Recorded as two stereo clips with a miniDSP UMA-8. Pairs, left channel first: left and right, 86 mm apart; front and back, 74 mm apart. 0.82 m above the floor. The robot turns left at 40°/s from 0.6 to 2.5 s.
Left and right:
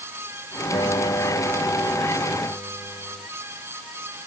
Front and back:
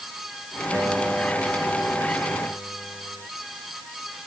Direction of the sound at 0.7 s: 120° left.